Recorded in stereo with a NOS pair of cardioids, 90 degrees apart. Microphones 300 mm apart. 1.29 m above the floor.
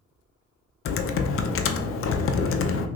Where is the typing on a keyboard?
45° left, 0.6 m.